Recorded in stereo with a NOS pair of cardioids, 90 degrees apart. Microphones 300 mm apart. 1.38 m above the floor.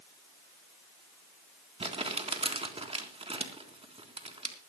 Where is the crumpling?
20° right, 3.5 m.